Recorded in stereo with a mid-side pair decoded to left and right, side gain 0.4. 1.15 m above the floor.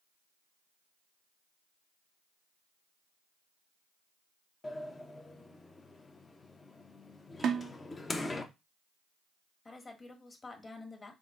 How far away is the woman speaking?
About 1.2 m.